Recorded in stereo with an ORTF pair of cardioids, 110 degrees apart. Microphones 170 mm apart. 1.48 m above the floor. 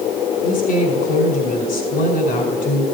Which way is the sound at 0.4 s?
60° left.